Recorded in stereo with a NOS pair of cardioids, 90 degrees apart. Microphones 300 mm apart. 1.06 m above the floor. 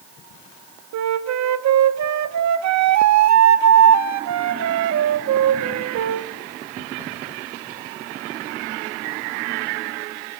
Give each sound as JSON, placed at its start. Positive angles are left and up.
{"t": 0.9, "sound": "a flute", "azimuth_deg": -65, "distance_m": 1.3}